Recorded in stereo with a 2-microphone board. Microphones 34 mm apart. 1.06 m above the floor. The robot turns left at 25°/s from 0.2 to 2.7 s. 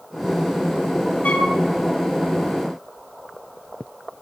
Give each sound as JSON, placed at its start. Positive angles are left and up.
{"t": 1.2, "sound": "a flute", "side_deg": 50, "distance_m": 2.5}